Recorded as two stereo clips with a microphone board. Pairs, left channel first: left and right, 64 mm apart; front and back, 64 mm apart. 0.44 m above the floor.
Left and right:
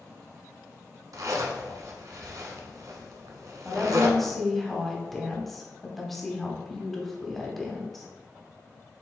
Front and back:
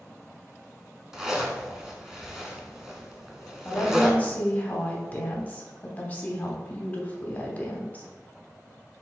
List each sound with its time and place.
1.1 s a zipper: 100° right, 0.8 m
3.6 s a woman speaking: 10° left, 0.9 m